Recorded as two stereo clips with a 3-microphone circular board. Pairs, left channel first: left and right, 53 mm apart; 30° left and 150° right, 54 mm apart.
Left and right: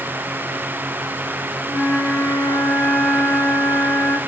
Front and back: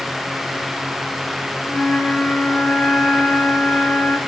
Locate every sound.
1.7 s a flute: 75° left, 3 m